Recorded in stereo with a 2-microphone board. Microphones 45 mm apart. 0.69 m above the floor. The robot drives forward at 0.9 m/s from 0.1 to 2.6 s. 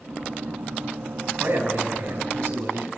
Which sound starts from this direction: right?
A man speaking, at 1.4 s.